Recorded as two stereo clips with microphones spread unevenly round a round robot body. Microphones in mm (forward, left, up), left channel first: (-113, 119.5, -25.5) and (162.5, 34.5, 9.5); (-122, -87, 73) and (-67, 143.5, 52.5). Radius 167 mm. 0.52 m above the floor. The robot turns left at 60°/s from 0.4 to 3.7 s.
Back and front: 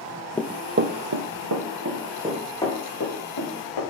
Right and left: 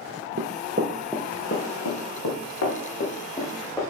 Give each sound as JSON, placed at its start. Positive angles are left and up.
{"t": 0.4, "sound": "running footsteps", "azimuth_deg": 75, "distance_m": 0.6}